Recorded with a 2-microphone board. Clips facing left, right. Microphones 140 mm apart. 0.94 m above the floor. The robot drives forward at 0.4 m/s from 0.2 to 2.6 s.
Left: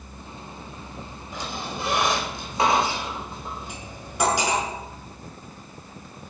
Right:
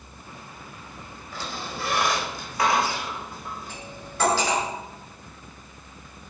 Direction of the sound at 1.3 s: 20° left (ahead or behind).